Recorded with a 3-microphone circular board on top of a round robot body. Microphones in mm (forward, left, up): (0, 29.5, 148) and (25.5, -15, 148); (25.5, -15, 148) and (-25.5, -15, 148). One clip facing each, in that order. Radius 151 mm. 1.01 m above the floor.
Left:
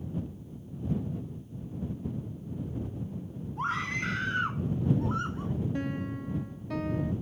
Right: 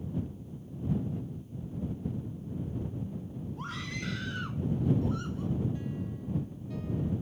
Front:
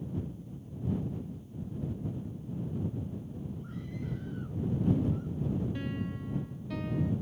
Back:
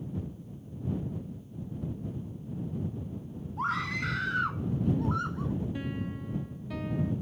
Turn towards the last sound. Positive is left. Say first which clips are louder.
# left 4 dB, back 1 dB
turn(degrees=95)